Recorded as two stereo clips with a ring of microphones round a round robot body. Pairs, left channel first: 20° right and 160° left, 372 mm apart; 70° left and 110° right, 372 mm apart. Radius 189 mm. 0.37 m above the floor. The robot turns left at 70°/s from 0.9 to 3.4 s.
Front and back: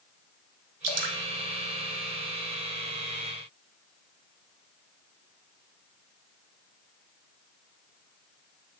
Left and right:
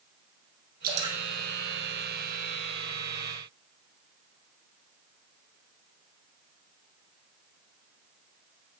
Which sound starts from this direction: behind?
Dripping, at 0.8 s.